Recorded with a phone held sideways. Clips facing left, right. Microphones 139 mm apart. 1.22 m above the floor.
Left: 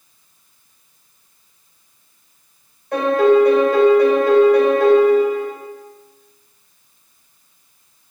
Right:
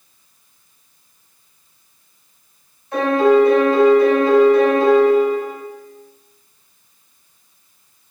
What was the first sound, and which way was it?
A piano, 60° left (ahead or behind).